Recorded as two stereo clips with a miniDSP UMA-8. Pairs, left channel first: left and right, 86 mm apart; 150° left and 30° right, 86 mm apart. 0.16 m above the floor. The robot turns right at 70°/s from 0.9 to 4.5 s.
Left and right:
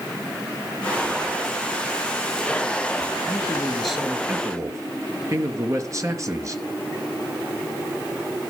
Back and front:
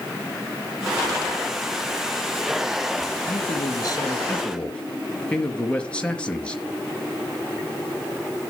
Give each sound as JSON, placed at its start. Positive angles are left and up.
{"t": 3.3, "sound": "a man speaking", "azimuth_deg": 140, "distance_m": 3.0}